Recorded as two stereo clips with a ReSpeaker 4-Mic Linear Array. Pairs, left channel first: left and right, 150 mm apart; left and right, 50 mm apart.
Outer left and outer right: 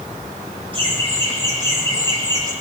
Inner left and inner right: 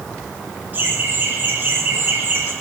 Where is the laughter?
30° right (ahead or behind), 3.5 m; by 2.5 s 25° right (ahead or behind), 2.5 m.